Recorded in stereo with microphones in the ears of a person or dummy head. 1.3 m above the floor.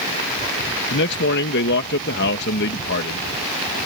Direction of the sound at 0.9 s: 65° left (ahead or behind).